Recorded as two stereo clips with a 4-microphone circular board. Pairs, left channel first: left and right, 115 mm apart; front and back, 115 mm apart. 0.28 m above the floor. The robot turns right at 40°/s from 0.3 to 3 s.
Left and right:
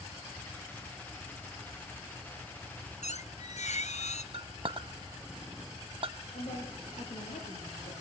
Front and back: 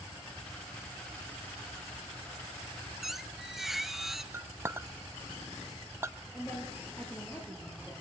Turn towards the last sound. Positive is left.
turn(degrees=80)